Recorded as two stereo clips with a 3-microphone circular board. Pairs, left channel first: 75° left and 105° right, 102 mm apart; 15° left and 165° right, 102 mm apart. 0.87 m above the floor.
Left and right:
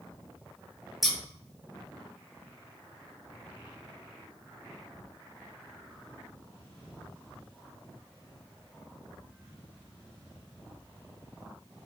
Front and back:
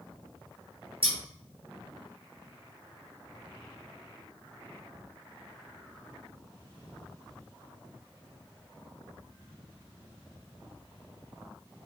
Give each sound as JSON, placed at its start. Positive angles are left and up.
{"t": 1.0, "sound": "scissors", "azimuth_deg": 165, "distance_m": 1.0}